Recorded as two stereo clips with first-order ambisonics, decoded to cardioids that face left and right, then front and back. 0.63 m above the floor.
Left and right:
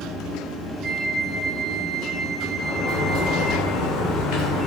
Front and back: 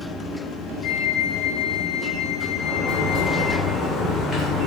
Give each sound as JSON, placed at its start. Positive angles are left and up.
{"t": 0.8, "sound": "a flute", "azimuth_deg": -20, "distance_m": 1.5}
{"t": 2.6, "sound": "a sliding door", "azimuth_deg": 65, "distance_m": 2.0}